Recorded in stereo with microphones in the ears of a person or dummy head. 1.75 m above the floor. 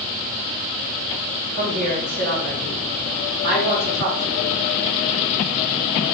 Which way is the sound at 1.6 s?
65° right (ahead or behind).